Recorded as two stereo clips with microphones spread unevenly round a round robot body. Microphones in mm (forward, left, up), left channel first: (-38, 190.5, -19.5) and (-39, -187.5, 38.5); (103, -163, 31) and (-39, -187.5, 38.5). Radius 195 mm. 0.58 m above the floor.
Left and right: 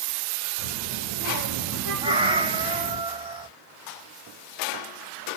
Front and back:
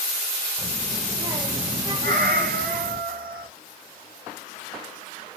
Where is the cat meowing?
165° right, 1.0 m.